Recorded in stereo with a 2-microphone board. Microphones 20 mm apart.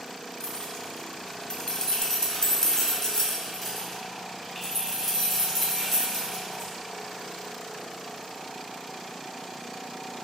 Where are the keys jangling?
35° left (ahead or behind), 0.9 m; by 6.7 s 5° left (ahead or behind), 3 m.